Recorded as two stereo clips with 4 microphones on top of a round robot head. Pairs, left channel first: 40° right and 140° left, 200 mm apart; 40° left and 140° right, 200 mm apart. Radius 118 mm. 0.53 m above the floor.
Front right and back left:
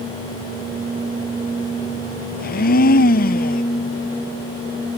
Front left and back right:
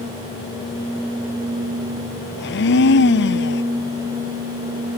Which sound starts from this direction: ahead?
A blender, at 2.4 s.